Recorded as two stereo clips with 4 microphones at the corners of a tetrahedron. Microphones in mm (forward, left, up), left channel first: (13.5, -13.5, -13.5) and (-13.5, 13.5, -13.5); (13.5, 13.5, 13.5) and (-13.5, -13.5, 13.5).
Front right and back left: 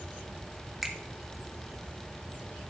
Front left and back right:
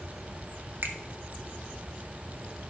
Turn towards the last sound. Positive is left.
turn(degrees=-140)